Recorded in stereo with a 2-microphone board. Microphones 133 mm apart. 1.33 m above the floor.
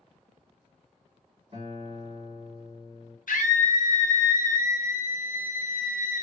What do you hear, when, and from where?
1.5 s a guitar: 55° right (ahead or behind), 1.7 m
3.3 s a scream: 85° left, 0.9 m